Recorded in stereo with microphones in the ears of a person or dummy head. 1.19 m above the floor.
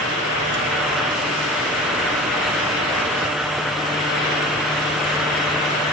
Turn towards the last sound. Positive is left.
No sound to turn to.